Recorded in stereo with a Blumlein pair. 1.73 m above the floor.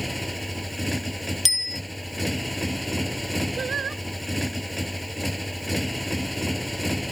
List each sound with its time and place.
0.0 s a motorcycle: 5° left
1.4 s a bicycle bell: 10° left
3.6 s singing: 20° right